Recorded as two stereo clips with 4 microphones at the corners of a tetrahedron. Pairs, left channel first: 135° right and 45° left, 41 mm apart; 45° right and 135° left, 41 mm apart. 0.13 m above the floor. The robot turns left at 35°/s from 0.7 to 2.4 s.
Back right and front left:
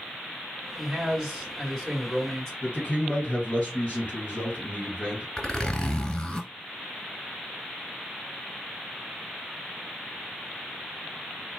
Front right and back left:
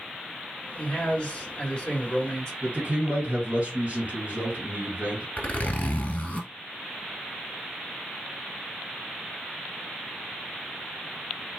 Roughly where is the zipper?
Right.